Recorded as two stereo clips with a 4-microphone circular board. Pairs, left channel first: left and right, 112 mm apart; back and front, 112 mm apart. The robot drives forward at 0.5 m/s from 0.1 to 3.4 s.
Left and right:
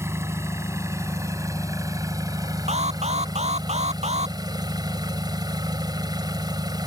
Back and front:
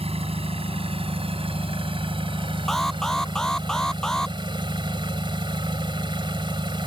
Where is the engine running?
25° right; by 6.9 s 40° right.